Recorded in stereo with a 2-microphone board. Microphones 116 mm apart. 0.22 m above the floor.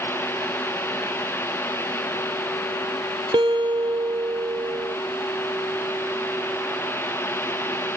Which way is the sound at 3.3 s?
45° right (ahead or behind).